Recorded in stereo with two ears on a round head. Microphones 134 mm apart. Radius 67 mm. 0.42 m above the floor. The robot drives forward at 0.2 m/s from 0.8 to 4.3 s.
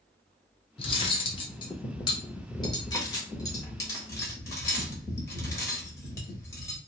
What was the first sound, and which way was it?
Cutlery clinking, 35° left (ahead or behind).